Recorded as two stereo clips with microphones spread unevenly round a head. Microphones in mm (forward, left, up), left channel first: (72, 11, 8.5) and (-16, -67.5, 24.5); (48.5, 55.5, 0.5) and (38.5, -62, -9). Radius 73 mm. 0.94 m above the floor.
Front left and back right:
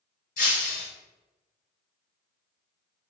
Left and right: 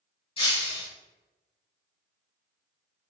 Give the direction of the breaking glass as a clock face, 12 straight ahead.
10 o'clock.